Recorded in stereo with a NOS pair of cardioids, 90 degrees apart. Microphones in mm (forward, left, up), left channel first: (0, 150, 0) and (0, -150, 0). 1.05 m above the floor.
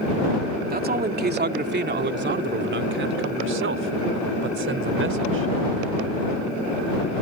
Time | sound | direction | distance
0.7 | a man speaking | 30° right | ?